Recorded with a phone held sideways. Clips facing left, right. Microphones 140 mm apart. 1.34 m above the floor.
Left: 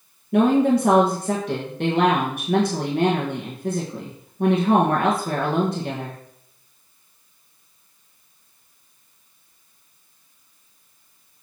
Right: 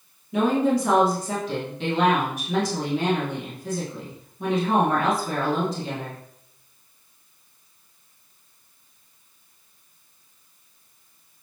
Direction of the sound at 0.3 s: 65° left (ahead or behind).